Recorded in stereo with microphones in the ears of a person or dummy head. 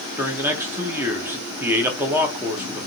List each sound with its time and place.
0.2 s a man speaking: 15° right (ahead or behind), 0.9 m